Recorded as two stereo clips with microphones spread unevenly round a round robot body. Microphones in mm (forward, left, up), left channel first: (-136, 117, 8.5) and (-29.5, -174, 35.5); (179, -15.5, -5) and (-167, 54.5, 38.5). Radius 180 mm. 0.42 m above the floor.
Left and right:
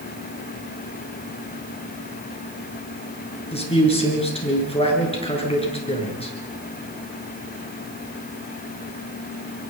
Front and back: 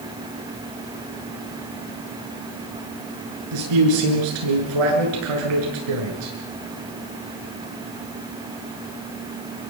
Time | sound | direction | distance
3.5 | a man speaking | straight behind | 7.5 m